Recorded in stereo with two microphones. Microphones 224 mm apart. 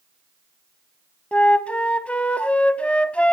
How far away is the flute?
About 0.6 m.